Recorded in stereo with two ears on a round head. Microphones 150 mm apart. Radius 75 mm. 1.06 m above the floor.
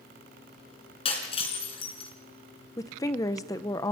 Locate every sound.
1.1 s breaking glass: 35° left (ahead or behind), 4 m
2.8 s a woman speaking: 20° left (ahead or behind), 0.7 m